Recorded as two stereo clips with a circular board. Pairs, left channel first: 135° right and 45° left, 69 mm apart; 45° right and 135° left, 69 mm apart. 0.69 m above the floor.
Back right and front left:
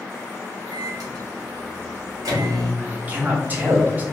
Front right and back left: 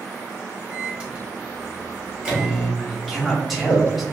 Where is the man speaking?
45° left, 1.0 m.